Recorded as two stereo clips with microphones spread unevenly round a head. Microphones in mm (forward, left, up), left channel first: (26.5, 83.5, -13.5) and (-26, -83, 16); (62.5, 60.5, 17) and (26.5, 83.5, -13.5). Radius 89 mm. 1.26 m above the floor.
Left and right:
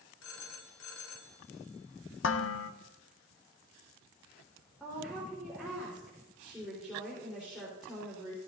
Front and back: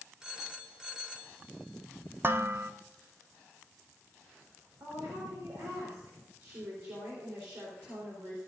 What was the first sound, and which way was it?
A phone ringing, 60° left.